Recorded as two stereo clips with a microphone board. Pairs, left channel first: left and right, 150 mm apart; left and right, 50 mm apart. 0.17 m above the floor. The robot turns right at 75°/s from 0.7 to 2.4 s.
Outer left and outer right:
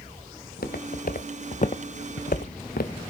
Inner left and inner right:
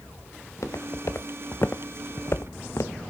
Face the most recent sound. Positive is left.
turn(degrees=80)